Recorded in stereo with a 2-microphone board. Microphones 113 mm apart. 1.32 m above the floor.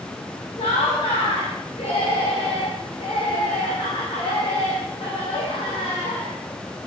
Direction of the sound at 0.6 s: 70° left (ahead or behind).